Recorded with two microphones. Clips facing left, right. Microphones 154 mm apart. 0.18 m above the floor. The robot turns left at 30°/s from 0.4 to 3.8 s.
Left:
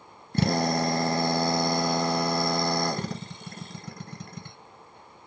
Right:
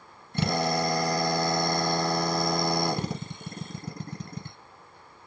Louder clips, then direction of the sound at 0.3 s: Left 2 dB; 60° left.